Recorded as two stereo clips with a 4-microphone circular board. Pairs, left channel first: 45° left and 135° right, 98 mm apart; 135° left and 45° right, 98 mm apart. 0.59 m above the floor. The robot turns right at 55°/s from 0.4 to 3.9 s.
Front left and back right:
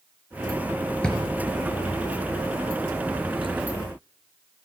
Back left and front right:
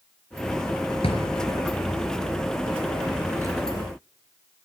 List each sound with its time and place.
1.0 s a drawer: 125° left, 4.5 m; by 3.6 s 95° right, 4.5 m